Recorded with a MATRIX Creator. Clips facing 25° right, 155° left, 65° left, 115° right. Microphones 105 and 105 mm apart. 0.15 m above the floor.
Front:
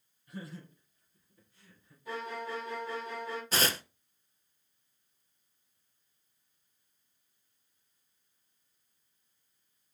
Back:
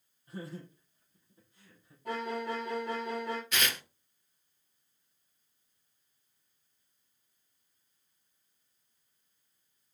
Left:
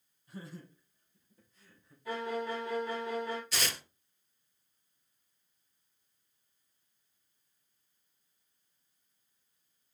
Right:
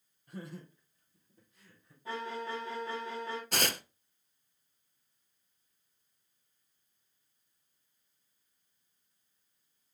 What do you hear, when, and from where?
0.3 s laughter: 145° right, 4 m; by 1.9 s 135° right, 5 m
2.0 s a violin: 175° right, 4.5 m
3.5 s tearing paper: 75° right, 0.6 m